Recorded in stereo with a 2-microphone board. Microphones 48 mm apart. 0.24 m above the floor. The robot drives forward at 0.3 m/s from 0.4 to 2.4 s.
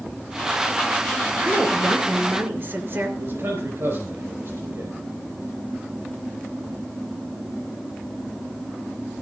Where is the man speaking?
60° right (ahead or behind), 4.5 m.